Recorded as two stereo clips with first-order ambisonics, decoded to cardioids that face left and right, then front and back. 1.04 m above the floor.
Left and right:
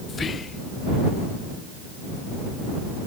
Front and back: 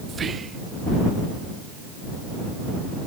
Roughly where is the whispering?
Behind left.